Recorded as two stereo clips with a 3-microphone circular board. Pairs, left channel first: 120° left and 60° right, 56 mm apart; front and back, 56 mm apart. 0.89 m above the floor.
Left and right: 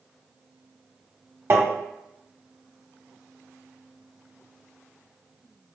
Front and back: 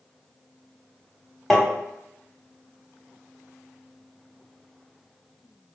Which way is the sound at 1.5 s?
85° right.